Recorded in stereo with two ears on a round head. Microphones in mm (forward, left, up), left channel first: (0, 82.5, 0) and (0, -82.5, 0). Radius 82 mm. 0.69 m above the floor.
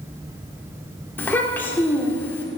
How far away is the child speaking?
About 1.4 m.